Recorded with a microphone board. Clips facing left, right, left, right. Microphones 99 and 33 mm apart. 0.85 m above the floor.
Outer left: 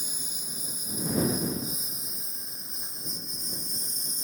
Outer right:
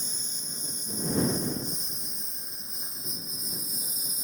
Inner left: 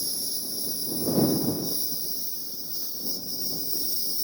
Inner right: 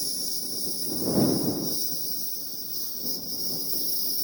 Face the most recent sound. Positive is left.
turn(degrees=-5)  # may be behind; listen again after turning